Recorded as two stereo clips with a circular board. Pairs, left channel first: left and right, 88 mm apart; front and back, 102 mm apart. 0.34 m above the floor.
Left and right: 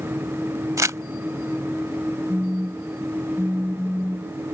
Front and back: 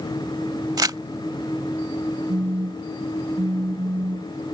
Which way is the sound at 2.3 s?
Straight behind.